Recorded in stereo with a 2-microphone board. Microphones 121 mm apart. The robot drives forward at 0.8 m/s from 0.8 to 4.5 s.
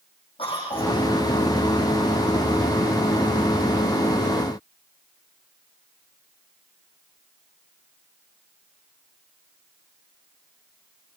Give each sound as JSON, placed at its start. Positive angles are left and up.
{"t": 0.4, "sound": "a cough", "side_deg": 50, "distance_m": 7.0}